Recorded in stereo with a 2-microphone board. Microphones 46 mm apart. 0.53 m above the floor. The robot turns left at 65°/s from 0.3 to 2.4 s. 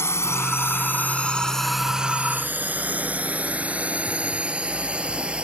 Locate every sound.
0.0 s a drone: 65° left (ahead or behind); by 5.5 s 25° right (ahead or behind)